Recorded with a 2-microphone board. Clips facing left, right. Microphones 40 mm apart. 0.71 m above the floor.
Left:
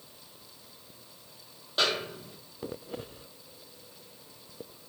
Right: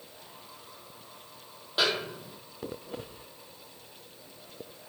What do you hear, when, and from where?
1.8 s a snare drum: 5° right (ahead or behind), 0.7 m